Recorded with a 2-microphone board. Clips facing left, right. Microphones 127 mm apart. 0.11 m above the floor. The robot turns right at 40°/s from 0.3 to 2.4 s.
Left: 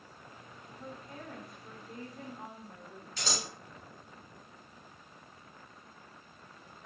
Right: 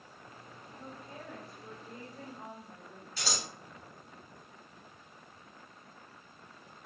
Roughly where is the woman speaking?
Behind right.